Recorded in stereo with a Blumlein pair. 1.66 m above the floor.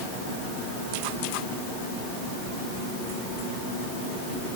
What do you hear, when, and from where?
Only background noise.